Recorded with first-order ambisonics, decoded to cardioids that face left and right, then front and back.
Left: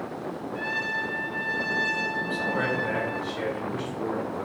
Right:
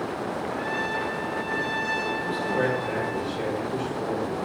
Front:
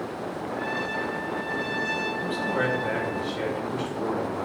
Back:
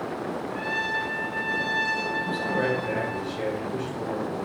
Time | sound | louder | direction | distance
0.5 | a trumpet | left 2 dB, back 2 dB | 140° left | 2 m
2.2 | a man speaking | right 2 dB, even | 20° left | 1.5 m